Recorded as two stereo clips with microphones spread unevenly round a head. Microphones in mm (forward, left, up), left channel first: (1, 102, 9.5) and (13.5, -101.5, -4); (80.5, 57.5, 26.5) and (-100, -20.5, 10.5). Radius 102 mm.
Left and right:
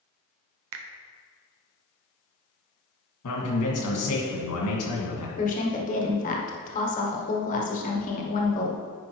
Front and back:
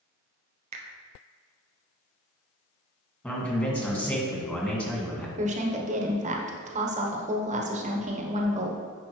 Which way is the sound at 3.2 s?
105° left.